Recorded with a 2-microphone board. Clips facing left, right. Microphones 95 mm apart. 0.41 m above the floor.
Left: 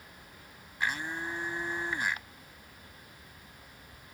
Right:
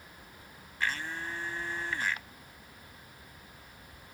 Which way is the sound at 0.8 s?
20° left (ahead or behind).